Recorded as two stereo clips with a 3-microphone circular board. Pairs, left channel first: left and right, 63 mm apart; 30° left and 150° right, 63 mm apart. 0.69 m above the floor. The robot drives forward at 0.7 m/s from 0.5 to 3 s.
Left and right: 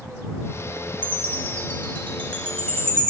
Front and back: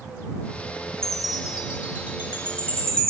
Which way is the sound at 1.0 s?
105° left.